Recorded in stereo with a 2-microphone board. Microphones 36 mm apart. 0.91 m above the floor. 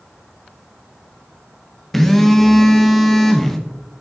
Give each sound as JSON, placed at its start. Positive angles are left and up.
{"t": 1.9, "sound": "a phone buzzing", "side_deg": 10, "distance_m": 1.0}